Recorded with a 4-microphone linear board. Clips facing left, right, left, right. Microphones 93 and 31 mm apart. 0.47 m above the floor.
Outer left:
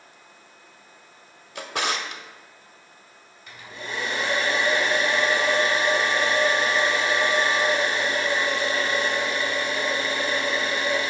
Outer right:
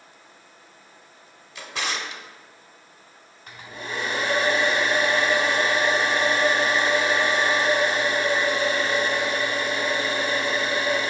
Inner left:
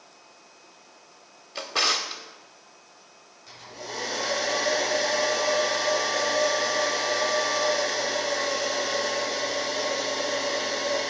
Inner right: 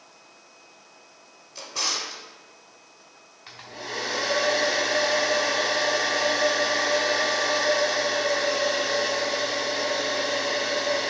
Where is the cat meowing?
No cat meowing in this recording.